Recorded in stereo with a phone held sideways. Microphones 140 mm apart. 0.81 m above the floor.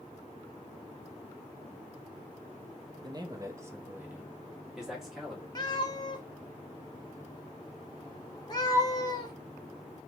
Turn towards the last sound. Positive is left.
turn(degrees=30)  # may be behind; listen again after turning